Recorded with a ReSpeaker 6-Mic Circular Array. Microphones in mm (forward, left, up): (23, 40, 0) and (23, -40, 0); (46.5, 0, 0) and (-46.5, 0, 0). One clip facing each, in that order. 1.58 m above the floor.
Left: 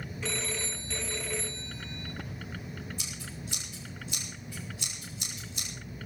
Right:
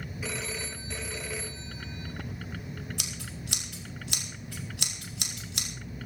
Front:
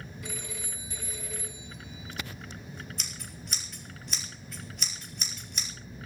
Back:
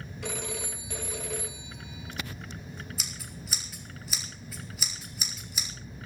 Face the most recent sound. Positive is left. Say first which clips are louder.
# right 1 dB, back 1 dB
turn(degrees=-95)